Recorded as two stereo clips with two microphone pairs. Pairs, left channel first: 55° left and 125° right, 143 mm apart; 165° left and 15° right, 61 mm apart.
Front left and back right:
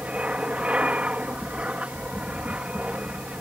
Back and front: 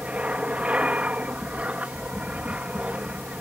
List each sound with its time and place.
0.0 s an aircraft: 55° right